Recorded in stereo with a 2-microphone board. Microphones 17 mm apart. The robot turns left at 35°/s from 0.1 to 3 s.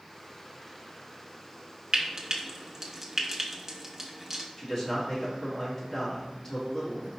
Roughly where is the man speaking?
Centre.